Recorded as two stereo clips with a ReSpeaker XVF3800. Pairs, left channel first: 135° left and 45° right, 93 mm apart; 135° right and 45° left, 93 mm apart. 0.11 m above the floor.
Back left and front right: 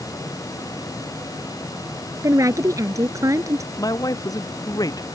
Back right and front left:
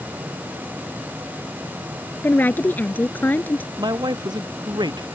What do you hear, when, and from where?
2.2 s a woman speaking: 75° right
3.8 s a man speaking: 85° left